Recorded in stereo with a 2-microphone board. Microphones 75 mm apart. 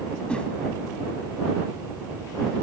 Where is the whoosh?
15° left (ahead or behind).